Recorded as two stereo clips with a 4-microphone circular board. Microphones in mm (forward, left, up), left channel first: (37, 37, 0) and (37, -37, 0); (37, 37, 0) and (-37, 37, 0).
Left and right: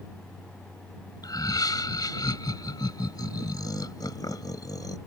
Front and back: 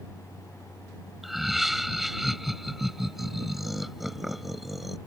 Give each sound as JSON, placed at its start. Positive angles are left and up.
{"t": 1.2, "sound": "laughter", "azimuth_deg": 95}